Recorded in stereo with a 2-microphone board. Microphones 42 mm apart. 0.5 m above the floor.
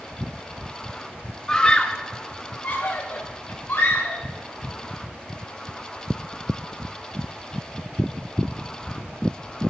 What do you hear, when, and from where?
1.5 s a scream: 15° left (ahead or behind), 0.7 m; by 4.2 s 65° left (ahead or behind), 1.9 m